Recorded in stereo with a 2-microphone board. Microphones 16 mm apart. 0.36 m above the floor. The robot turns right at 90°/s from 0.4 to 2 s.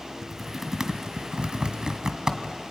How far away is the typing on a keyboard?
About 1.7 m.